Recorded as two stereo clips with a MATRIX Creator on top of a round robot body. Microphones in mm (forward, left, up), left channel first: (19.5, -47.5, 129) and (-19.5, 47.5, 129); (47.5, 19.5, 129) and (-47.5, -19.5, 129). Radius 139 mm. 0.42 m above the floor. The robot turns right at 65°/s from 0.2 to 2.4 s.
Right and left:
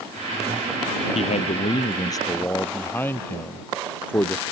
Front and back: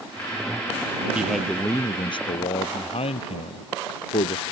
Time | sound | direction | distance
1.1 | a man speaking | 80° right | ?